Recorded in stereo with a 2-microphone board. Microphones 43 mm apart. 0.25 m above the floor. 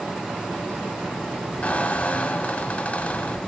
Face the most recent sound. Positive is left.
turn(degrees=35)  # may be behind; listen again after turning